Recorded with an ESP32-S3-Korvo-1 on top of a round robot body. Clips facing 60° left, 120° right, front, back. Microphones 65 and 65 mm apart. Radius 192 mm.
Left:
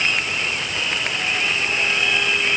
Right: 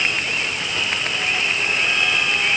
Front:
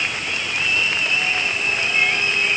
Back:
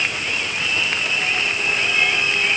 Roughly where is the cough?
I don't hear a cough.